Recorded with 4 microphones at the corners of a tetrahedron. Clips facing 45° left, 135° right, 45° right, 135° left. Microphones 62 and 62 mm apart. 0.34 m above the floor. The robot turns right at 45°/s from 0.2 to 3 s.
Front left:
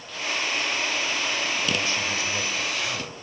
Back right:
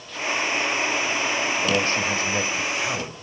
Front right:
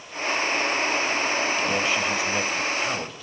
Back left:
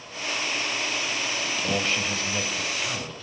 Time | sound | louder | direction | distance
1.6 | a man speaking | back right 4 dB, front right 3 dB | 140° right | 1.6 m